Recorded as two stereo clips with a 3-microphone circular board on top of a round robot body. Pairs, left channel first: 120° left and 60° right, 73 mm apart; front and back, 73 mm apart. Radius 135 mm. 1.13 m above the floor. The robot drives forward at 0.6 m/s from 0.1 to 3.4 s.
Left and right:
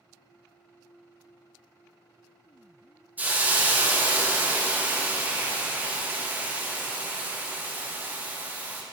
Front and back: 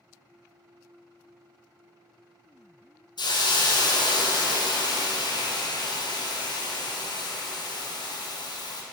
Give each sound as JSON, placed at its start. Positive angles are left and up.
{"t": 3.2, "sound": "a hiss", "azimuth_deg": 10, "distance_m": 1.4}